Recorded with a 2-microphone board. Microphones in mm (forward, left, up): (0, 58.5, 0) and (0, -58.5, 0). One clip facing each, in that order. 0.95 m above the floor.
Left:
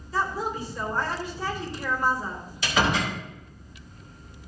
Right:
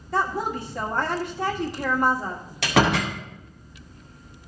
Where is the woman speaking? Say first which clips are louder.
Right 3 dB; 65° right (ahead or behind), 1.7 m.